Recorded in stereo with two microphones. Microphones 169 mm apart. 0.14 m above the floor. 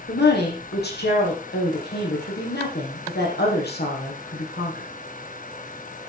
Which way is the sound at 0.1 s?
75° left (ahead or behind).